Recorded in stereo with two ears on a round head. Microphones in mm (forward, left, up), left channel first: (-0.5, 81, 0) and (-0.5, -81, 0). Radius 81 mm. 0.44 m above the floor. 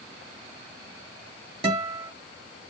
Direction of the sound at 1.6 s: 35° right (ahead or behind).